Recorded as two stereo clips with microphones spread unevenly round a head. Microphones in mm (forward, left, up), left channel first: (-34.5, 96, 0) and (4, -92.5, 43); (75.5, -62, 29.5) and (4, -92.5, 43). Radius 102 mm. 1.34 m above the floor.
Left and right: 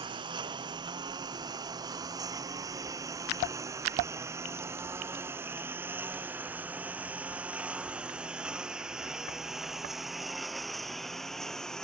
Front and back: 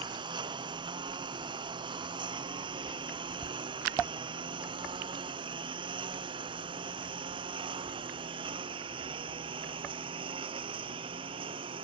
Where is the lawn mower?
145° right; by 11.9 s 170° right.